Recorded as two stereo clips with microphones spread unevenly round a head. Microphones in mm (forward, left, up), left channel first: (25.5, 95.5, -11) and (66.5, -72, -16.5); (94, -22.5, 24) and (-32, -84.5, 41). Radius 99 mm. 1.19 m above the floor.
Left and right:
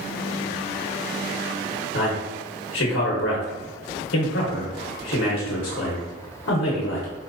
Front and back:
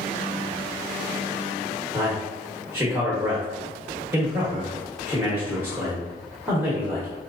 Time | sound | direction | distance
1.9 | a man speaking | 125° left | 0.8 m